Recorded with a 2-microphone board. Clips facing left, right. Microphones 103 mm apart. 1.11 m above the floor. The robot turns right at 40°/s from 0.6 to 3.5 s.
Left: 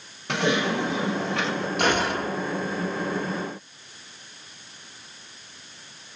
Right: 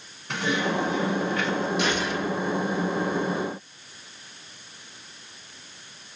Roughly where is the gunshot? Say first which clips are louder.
Left 2 dB; left.